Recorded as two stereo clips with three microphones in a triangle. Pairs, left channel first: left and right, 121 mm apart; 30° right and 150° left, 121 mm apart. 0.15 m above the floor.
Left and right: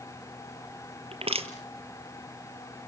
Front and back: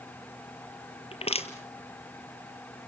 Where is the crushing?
60° right, 1.7 m.